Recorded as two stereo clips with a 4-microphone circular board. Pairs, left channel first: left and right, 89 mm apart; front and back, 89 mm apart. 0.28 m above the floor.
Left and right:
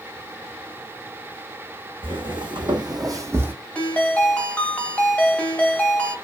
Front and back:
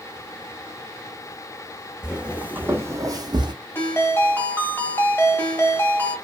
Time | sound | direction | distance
2.0 | footsteps | 100° right | 1.1 m
3.8 | a ringtone | 35° left | 0.9 m